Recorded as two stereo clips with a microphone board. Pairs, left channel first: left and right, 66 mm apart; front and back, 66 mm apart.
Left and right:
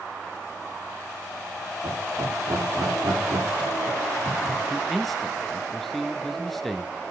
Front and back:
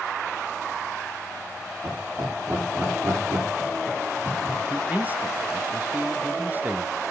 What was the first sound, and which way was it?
Laughter, 130° right.